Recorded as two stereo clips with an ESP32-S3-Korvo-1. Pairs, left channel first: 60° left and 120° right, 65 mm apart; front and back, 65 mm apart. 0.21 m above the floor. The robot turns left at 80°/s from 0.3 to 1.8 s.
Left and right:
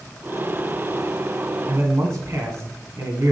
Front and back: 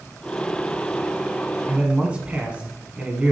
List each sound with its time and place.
1.7 s a man speaking: 105° right, 1.8 m; by 3.3 s 115° right, 1.8 m